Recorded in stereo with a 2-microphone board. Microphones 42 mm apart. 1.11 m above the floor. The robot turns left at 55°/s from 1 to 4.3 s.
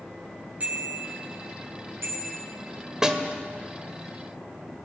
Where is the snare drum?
15° right (ahead or behind), 1.8 m; by 3.2 s 25° right (ahead or behind), 1.8 m.